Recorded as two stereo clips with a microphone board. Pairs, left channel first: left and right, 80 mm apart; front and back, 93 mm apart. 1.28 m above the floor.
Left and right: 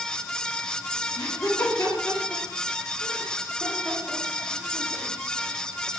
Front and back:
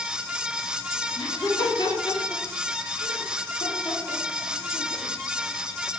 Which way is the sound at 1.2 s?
45° left.